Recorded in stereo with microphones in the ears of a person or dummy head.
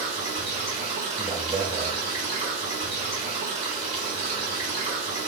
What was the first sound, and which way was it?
Running water, 25° right (ahead or behind).